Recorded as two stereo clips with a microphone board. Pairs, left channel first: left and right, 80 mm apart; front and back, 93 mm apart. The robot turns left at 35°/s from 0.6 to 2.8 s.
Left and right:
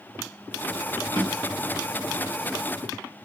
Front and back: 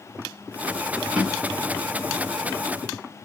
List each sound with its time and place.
1.1 s a drawer: 105° left, 1.2 m; by 1.8 s 85° left, 1.2 m